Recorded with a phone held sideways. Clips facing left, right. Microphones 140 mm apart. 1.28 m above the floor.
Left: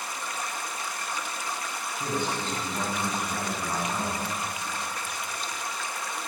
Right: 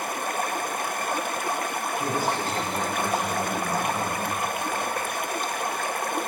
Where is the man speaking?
10° right (ahead or behind), 8 m.